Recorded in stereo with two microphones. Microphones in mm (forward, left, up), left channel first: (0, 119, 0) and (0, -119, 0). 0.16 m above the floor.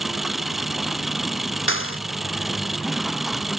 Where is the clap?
60° left (ahead or behind).